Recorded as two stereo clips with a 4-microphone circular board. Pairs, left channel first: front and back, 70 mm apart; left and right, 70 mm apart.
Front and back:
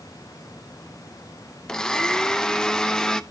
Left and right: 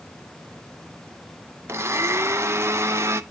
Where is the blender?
75° right, 0.6 m.